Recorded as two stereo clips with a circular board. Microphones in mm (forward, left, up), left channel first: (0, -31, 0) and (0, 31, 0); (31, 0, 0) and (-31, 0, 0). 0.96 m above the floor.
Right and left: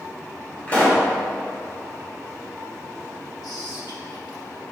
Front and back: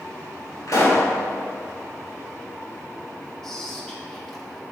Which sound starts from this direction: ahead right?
A pop, at 0.7 s.